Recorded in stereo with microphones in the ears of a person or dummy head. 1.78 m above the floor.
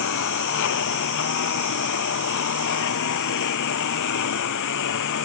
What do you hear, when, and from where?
0.0 s a lawn mower: 70° left (ahead or behind)